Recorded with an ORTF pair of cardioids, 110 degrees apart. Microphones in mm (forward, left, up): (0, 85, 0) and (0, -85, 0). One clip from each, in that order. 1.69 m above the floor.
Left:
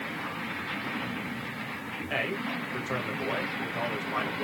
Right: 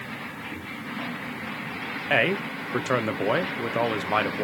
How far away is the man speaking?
About 1.5 m.